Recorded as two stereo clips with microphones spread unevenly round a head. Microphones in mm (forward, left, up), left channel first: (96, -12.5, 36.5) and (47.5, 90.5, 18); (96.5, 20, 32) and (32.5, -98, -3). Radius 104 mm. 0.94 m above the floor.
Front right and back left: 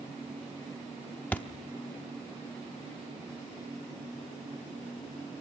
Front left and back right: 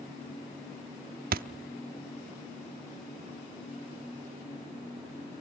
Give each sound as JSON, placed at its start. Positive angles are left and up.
{"t": 1.3, "sound": "a thud", "azimuth_deg": -135, "distance_m": 0.6}